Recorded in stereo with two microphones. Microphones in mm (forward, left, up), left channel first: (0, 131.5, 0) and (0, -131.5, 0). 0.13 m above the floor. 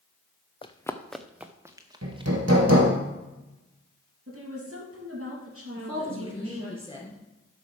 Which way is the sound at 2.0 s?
70° right (ahead or behind).